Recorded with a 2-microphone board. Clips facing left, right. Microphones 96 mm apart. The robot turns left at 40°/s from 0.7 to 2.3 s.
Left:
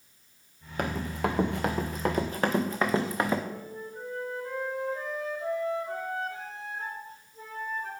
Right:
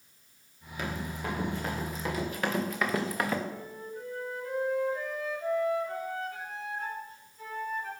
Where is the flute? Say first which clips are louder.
Left 1 dB; 35° left (ahead or behind), 3.5 m.